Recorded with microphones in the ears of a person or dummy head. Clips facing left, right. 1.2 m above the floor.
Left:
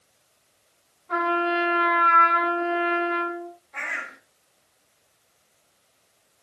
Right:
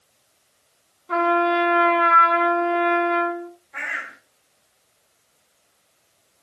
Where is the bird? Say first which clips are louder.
Right 1 dB; 5° right (ahead or behind), 1.2 m.